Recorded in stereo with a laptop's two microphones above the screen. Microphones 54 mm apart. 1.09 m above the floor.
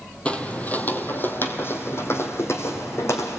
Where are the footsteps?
25° left (ahead or behind), 1.2 m; by 3.4 s 65° left (ahead or behind), 2.5 m.